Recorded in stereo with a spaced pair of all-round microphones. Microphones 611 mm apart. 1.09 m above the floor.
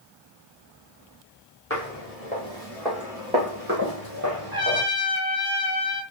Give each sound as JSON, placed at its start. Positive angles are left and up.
{"t": 1.7, "sound": "footsteps", "side_deg": 20, "distance_m": 1.9}
{"t": 4.5, "sound": "a trumpet", "side_deg": -50, "distance_m": 1.4}